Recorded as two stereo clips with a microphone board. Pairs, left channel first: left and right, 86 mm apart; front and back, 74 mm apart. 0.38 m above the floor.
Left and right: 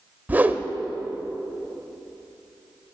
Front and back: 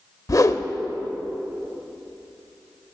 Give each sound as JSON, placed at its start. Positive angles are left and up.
{"t": 0.3, "sound": "a whoosh", "azimuth_deg": -25, "distance_m": 0.7}